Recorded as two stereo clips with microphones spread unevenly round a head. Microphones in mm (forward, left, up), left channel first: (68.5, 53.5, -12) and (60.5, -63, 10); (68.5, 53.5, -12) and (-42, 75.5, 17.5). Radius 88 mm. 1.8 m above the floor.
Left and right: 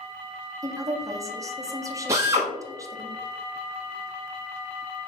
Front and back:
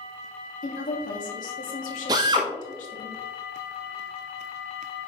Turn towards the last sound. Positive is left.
turn(degrees=-150)